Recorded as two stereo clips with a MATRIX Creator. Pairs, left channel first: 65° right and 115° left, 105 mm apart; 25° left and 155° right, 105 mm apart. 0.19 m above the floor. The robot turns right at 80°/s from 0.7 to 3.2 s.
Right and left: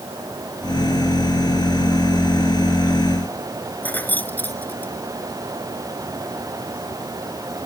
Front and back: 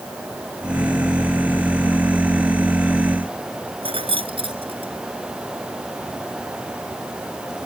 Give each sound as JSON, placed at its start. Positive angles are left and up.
{"t": 3.8, "sound": "keys jangling", "azimuth_deg": -140}